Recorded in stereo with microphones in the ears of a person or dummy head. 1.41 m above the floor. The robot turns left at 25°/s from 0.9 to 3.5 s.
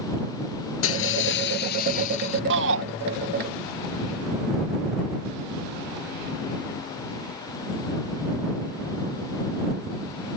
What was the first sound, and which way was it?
Breaking glass, 80° left.